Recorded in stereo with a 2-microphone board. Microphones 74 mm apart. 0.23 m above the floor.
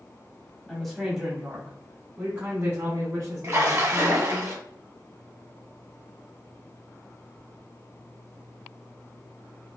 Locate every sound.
0.7 s a woman speaking: 5° left (ahead or behind), 1.4 m; by 4.4 s 50° right (ahead or behind), 2.5 m
3.4 s a splash: 45° right (ahead or behind), 1.3 m